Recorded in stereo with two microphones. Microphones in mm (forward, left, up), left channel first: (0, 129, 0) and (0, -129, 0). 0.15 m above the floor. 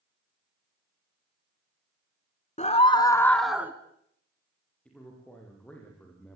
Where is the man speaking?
5° left (ahead or behind), 8 m.